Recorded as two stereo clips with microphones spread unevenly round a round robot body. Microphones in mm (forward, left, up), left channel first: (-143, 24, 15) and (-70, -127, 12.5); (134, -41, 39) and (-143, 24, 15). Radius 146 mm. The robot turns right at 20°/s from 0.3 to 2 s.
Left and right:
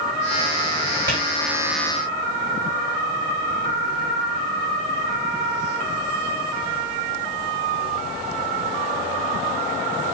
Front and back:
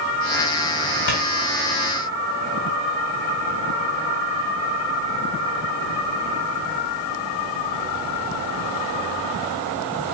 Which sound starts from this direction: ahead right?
A clap, at 1.1 s.